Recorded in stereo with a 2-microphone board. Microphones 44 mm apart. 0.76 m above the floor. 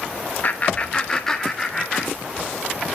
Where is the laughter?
40° left (ahead or behind), 0.7 m; by 2.6 s 5° right (ahead or behind), 2.5 m.